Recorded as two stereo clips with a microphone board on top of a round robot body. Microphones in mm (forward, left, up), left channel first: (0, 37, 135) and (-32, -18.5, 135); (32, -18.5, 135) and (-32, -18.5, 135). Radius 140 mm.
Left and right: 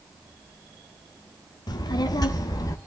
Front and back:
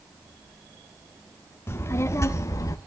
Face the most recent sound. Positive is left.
turn(degrees=30)